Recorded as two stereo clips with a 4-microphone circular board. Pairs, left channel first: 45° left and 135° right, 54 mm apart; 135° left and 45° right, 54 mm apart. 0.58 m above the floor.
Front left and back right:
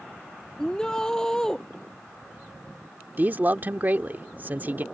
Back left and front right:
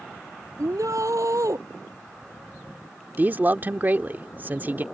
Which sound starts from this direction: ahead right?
A shout, at 0.6 s.